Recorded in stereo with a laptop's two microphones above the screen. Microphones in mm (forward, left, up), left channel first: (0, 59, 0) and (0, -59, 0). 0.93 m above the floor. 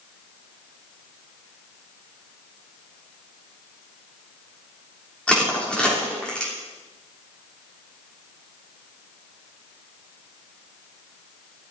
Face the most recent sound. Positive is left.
turn(degrees=10)  # may be behind; listen again after turning